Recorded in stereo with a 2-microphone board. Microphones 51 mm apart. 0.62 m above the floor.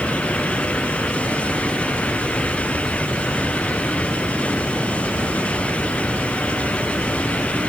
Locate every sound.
Only background noise.